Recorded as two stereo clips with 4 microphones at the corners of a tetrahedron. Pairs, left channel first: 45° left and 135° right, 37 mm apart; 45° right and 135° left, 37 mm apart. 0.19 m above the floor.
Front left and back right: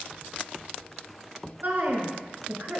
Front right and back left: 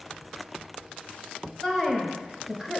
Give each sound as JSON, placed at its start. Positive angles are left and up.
{"t": 1.6, "sound": "a woman speaking", "azimuth_deg": -120, "distance_m": 2.0}